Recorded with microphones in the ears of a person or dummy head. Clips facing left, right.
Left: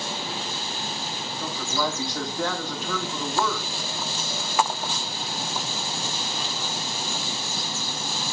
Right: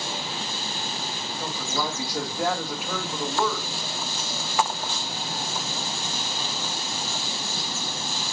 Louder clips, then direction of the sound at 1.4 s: Left 2 dB; 5° right (ahead or behind).